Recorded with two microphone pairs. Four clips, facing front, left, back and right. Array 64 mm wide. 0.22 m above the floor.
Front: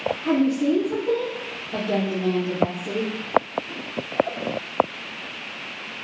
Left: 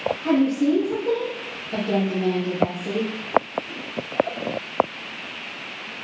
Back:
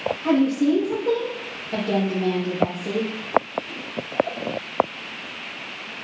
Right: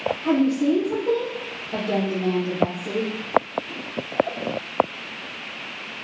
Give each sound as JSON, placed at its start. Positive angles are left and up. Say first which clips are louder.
{"t": 0.2, "sound": "a woman speaking", "louder": "even, back 2 dB", "azimuth_deg": 175, "distance_m": 4.5}